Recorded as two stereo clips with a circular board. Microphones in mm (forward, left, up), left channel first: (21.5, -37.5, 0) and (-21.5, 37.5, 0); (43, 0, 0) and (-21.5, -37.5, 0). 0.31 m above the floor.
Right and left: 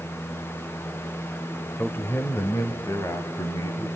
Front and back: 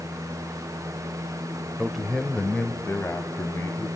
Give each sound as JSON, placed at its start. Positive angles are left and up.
{"t": 1.8, "sound": "a man speaking", "azimuth_deg": -85, "distance_m": 0.9}